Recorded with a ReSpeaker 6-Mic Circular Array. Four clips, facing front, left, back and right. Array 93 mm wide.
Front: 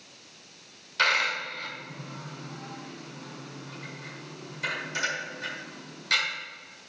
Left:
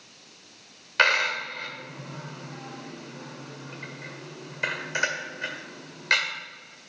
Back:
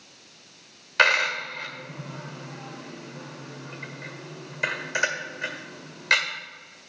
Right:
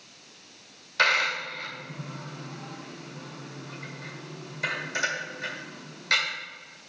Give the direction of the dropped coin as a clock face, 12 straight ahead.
7 o'clock.